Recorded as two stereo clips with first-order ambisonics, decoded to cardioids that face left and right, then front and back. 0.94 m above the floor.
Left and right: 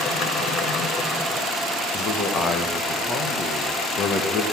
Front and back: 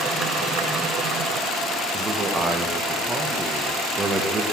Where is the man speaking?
120° left, 1.0 m.